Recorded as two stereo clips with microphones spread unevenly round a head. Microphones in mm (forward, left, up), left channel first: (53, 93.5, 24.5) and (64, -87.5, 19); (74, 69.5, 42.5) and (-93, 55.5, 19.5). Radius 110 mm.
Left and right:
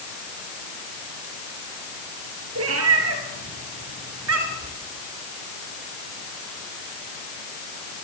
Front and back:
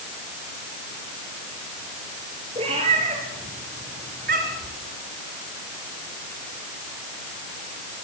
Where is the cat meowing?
110° right, 4.5 m; by 4.7 s 125° right, 3.5 m.